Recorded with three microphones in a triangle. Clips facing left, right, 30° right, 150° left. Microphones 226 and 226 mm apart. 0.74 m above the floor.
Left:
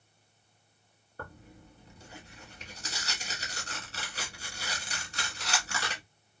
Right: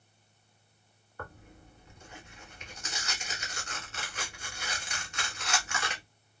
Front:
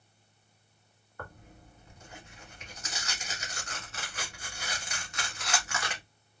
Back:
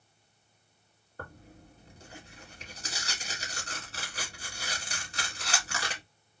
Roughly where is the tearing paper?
Behind left.